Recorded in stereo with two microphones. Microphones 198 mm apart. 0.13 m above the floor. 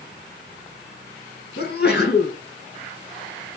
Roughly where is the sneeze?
Left.